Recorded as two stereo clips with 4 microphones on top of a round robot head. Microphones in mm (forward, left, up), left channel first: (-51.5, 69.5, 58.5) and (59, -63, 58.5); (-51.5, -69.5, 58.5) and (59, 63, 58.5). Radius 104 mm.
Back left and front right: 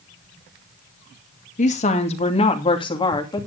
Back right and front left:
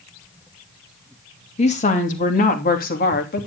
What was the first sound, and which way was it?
A woman speaking, straight behind.